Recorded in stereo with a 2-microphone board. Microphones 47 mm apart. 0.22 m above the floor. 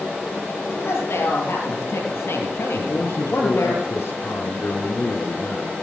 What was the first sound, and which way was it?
A woman speaking, 65° left (ahead or behind).